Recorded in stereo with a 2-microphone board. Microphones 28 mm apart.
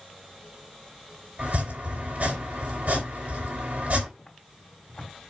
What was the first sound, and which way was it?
Chopping, 60° right (ahead or behind).